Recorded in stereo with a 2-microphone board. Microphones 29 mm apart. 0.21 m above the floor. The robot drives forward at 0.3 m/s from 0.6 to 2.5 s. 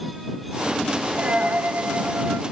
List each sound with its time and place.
1.2 s a dropped coin: 55° right (ahead or behind), 0.8 m; by 2.4 s 80° right, 0.6 m